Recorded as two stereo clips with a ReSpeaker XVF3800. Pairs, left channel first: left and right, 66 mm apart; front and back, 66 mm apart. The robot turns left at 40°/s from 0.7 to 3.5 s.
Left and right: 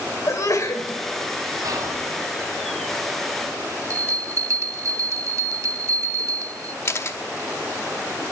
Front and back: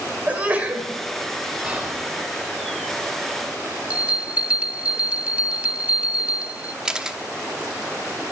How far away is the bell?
About 0.5 m.